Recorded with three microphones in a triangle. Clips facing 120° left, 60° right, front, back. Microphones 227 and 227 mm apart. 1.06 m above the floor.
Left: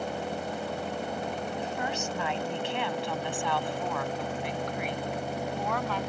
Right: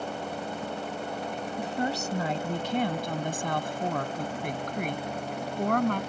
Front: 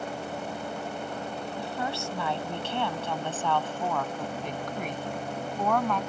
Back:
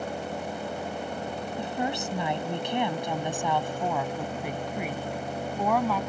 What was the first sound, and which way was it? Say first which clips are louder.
A woman speaking: right 3 dB, back 4 dB; 110° right.